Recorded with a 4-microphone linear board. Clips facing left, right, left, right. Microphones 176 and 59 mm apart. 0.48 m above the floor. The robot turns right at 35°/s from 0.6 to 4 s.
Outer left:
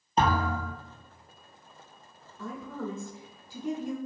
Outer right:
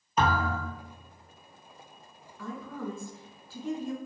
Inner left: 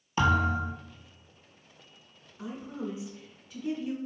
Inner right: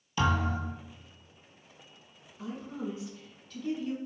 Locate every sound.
0.2 s a thud: 35° left (ahead or behind), 1.2 m; by 0.7 s 30° left (ahead or behind), 1.2 m
2.4 s a woman speaking: 20° left (ahead or behind), 0.8 m; by 4.0 s 15° left (ahead or behind), 0.8 m